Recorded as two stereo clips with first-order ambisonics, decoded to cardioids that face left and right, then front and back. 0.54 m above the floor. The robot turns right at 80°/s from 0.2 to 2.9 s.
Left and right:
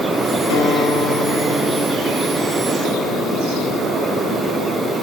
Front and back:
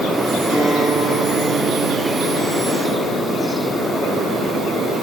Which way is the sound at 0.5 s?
115° left.